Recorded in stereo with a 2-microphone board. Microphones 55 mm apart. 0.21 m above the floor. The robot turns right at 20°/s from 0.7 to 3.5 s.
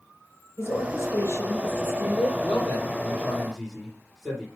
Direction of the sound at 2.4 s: 10° left (ahead or behind).